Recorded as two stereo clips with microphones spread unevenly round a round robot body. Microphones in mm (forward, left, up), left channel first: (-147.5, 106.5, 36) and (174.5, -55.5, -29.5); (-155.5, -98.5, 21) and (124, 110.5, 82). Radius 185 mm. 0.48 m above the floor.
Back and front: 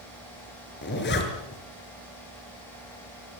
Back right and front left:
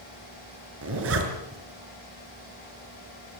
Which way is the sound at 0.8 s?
90° left.